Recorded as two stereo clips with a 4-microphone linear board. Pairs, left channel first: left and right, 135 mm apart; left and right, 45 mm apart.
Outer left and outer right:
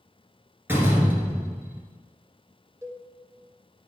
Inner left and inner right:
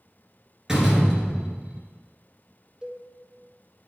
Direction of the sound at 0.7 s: 15° right (ahead or behind).